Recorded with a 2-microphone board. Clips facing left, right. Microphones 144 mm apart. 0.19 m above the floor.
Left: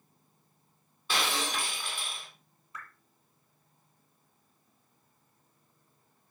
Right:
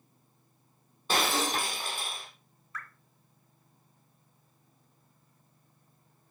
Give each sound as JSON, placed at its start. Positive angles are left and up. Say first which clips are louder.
{"t": 1.1, "sound": "breaking glass", "louder": "right 4 dB", "side_deg": -40, "distance_m": 3.5}
{"t": 2.7, "sound": "dripping", "louder": "right 2 dB", "side_deg": 20, "distance_m": 3.5}